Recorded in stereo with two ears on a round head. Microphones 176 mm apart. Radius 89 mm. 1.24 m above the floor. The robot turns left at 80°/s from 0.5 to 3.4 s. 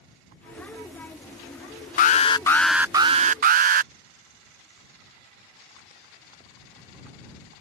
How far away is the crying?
I don't hear crying.